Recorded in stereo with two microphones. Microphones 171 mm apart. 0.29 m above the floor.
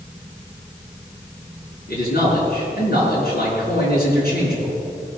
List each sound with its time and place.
1.9 s a man speaking: 60° left (ahead or behind), 5 m